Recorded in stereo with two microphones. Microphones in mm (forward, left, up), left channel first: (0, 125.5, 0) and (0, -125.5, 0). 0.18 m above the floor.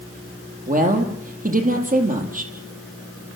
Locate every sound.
0.7 s a woman speaking: 30° right (ahead or behind), 6 m